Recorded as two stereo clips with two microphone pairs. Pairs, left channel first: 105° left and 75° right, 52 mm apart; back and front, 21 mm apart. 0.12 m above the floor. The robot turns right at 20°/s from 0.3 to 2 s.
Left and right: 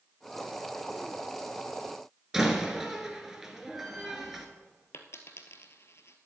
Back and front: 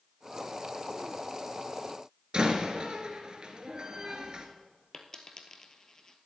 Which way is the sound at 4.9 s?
120° left.